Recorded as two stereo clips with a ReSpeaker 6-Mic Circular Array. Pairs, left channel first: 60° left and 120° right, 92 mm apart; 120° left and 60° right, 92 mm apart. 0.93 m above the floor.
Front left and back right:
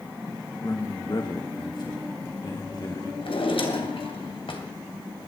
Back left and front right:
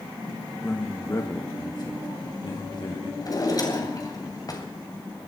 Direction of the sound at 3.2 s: 75° left.